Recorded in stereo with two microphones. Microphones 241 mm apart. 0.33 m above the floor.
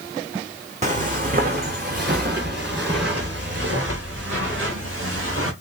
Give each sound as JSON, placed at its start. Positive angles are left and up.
{"t": 0.8, "sound": "footsteps", "side_deg": -30, "distance_m": 1.0}